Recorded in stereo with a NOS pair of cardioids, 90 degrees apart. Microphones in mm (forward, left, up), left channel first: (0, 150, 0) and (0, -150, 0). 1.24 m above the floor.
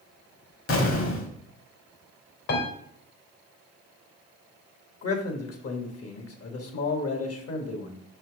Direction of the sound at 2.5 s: 60° left.